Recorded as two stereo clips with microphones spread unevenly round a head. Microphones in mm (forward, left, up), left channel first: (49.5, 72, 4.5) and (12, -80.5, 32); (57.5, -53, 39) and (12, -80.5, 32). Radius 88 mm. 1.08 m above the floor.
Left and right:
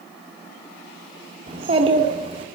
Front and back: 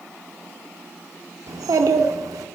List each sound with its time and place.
1.5 s a child speaking: 165° right, 0.8 m